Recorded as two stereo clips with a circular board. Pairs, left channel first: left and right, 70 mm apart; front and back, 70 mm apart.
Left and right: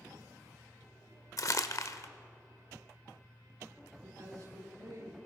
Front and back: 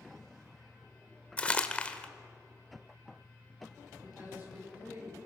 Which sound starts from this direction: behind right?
A woman speaking, at 4.0 s.